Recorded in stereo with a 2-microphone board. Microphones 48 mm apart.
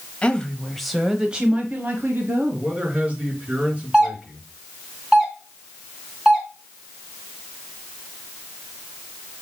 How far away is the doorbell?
About 3 m.